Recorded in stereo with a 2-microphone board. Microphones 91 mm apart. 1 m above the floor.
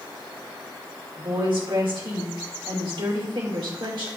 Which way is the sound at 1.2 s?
70° right (ahead or behind).